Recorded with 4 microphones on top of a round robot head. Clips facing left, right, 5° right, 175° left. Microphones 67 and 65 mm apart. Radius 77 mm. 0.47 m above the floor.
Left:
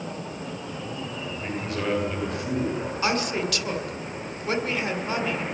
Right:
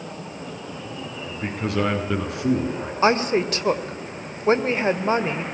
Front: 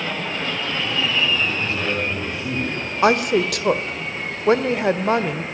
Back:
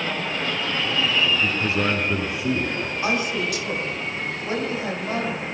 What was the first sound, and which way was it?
A man speaking, 110° right.